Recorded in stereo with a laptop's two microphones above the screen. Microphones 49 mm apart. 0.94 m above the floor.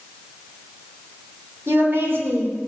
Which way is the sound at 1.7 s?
55° right (ahead or behind).